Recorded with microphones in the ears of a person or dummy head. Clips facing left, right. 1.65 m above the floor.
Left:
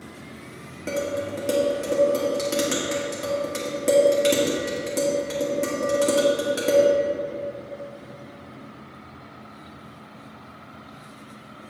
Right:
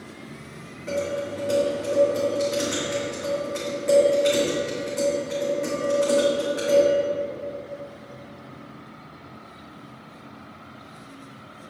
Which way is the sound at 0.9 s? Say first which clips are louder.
Even; 55° left (ahead or behind).